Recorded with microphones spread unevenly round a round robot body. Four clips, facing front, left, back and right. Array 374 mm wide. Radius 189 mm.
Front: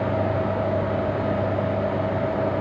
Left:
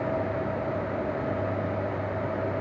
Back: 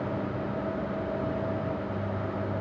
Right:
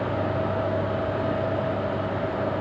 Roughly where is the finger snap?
No finger snap in this recording.